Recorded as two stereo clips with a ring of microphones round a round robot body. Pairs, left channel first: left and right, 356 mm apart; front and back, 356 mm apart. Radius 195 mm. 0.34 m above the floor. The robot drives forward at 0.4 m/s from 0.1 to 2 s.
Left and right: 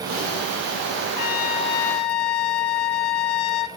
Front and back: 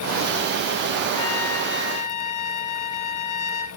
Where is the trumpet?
50° left, 0.9 m; by 3.7 s 75° left, 0.7 m.